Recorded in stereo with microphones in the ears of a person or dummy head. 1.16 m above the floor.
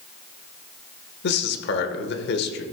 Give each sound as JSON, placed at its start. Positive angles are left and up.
{"t": 1.2, "sound": "a man speaking", "side_deg": 55, "distance_m": 1.0}